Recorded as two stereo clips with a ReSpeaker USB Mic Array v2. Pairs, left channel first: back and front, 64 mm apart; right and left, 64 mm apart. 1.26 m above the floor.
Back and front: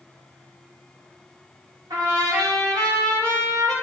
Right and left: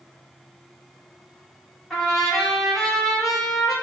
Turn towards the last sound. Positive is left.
turn(degrees=-5)